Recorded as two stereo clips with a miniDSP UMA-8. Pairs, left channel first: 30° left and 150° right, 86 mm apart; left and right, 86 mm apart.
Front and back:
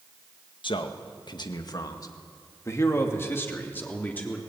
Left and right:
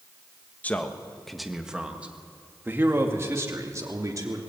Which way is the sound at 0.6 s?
20° left.